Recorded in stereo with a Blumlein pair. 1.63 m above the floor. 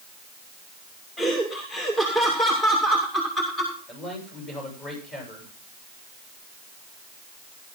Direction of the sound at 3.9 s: 20° left.